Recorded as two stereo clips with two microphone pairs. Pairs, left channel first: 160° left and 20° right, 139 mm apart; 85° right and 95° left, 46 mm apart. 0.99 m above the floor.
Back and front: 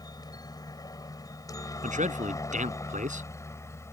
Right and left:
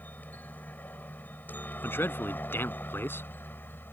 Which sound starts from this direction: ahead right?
A man speaking, at 1.8 s.